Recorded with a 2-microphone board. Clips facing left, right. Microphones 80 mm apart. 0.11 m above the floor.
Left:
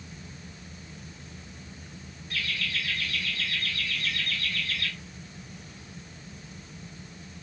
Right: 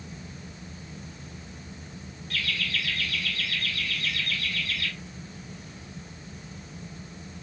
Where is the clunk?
No clunk in this recording.